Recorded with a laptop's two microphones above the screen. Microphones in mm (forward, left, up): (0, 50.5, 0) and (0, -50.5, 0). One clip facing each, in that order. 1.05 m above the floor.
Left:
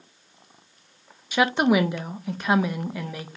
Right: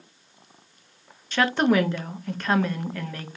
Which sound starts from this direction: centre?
A woman speaking, at 1.3 s.